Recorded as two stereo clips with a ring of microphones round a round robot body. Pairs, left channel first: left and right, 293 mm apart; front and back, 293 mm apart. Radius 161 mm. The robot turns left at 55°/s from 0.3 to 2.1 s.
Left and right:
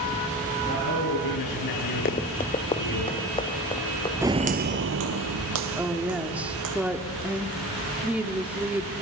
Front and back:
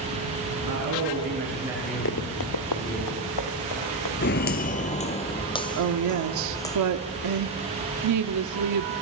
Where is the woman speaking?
175° right, 1.4 m.